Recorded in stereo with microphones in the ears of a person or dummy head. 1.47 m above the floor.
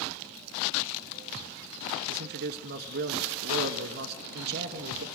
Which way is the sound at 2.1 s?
55° right (ahead or behind).